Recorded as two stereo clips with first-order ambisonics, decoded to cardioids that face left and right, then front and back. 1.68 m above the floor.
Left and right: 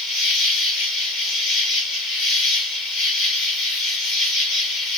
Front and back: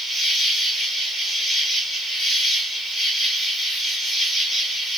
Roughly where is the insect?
Left.